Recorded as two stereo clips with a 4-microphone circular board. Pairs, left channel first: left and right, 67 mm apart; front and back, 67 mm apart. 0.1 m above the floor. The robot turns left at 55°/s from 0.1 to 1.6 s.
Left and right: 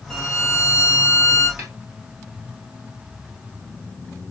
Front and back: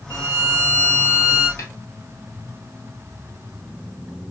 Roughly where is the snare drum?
Ahead right.